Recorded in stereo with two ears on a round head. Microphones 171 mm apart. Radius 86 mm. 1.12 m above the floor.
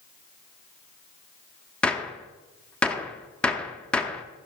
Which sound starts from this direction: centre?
A gunshot, at 1.8 s.